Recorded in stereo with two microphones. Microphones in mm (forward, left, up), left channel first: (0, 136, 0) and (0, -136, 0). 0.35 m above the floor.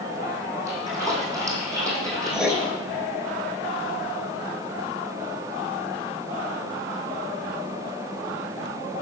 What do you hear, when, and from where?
0.7 s a splash: 10° right (ahead or behind), 2.5 m
2.3 s writing: 5° right (ahead or behind), 0.6 m